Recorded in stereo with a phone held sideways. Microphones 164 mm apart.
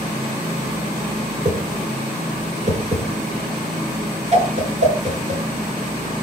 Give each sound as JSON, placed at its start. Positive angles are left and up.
{"t": 1.4, "sound": "a whoosh", "side_deg": -45, "distance_m": 6.0}